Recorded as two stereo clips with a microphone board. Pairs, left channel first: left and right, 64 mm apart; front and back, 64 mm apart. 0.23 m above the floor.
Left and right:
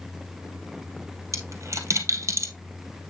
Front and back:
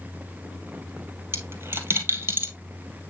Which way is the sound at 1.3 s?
130° right.